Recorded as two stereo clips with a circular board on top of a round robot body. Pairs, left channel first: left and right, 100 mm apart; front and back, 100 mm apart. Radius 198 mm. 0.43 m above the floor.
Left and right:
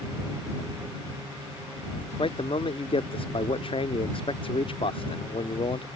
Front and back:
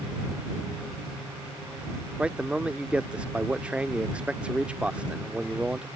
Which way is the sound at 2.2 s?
100° left.